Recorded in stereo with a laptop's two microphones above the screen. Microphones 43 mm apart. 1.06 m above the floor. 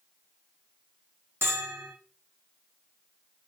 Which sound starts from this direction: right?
A bell, at 1.4 s.